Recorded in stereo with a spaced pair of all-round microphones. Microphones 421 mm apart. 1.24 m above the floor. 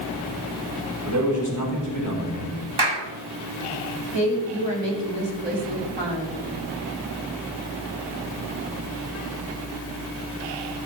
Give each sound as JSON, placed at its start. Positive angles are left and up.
{"t": 1.1, "sound": "a man speaking", "side_deg": -45, "distance_m": 6.0}
{"t": 2.8, "sound": "a clap", "side_deg": -70, "distance_m": 2.5}
{"t": 4.1, "sound": "a woman speaking", "side_deg": -85, "distance_m": 3.0}